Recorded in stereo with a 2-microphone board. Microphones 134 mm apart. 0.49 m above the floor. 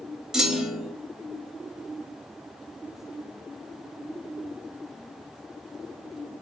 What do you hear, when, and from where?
0.3 s a clunk: 5° right (ahead or behind), 0.6 m